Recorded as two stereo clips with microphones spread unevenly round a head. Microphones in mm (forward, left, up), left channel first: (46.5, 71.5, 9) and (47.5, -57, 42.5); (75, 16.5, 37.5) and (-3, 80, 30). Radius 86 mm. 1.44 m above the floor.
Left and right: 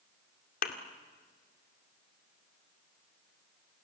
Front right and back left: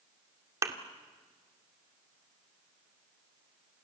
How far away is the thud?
About 2.0 m.